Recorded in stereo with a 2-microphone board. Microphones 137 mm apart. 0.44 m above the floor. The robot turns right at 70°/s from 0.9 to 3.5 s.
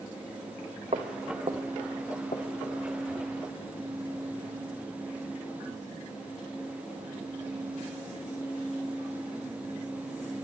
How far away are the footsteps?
About 1.3 m.